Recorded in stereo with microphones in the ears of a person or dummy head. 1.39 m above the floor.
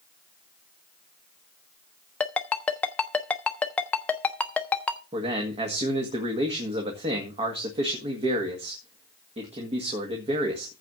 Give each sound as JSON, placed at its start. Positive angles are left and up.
{"t": 2.2, "sound": "a ringtone", "side_deg": 5, "distance_m": 0.8}
{"t": 5.1, "sound": "a man speaking", "side_deg": -30, "distance_m": 1.9}